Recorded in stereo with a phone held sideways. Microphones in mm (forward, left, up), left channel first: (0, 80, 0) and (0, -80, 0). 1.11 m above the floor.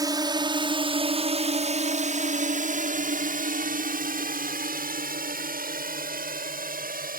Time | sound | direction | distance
0.0 | a drone | 25° right (ahead or behind) | ?